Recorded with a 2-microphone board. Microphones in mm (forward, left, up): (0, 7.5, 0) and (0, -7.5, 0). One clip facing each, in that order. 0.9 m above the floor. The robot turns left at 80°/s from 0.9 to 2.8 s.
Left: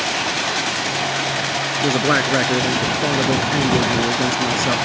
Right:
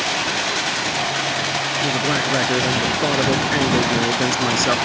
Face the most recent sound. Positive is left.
turn(degrees=-15)